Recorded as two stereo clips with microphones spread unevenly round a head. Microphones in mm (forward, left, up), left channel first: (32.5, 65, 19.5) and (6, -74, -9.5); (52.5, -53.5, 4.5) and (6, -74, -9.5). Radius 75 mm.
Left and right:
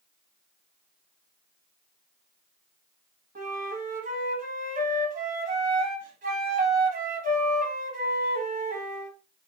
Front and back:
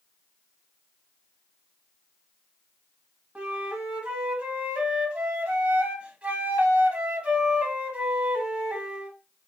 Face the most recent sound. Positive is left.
turn(degrees=-105)